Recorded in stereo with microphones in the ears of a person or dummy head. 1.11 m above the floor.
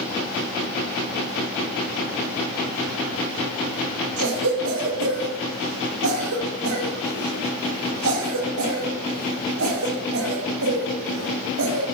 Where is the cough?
85° right, 2.0 m.